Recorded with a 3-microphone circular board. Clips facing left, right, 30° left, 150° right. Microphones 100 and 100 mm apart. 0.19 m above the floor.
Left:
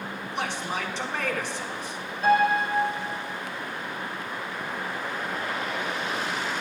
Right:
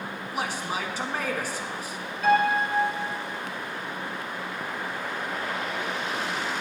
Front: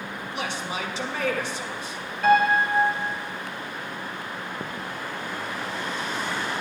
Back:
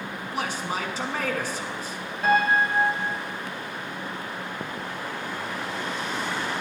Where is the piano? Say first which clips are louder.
Left 1 dB, front 2 dB; 145° left, 3.5 m.